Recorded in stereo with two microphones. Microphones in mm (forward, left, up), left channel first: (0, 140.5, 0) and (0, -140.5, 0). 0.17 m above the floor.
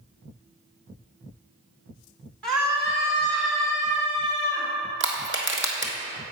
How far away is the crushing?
About 1.4 m.